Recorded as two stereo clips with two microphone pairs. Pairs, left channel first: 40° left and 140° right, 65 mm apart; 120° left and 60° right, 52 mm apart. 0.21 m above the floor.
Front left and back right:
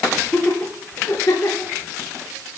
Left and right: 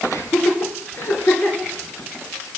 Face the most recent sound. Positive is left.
turn(degrees=70)